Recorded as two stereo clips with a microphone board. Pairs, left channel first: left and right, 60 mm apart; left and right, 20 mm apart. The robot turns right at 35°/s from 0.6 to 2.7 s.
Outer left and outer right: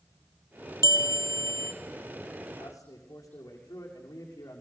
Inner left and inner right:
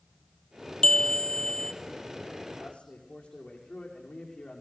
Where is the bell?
90° left, 1.5 m; by 1.7 s 120° left, 1.5 m.